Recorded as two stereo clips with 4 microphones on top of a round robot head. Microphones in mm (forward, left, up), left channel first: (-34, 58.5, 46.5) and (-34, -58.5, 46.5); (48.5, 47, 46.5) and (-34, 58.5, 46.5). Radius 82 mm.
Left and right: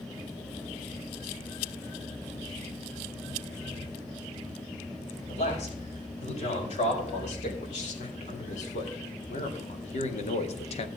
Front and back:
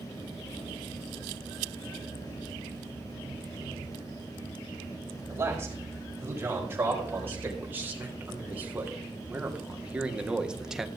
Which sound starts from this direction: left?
A man speaking, at 5.3 s.